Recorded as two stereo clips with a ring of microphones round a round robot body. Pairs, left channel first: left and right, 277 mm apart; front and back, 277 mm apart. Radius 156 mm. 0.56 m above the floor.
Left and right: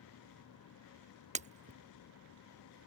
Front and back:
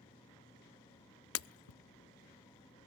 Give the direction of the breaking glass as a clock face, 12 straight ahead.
1 o'clock.